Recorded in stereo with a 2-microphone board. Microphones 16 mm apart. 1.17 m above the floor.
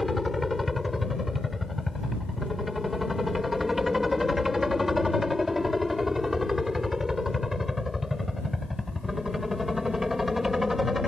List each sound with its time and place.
0.0 s a helicopter: 10° right (ahead or behind); by 11.1 s 35° right (ahead or behind)